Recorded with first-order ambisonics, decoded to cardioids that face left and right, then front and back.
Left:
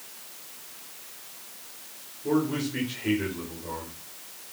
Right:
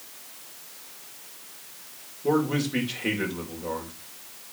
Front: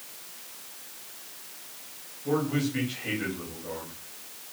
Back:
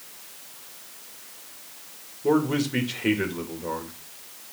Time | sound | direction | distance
2.2 | a man speaking | 150° right | 2.5 m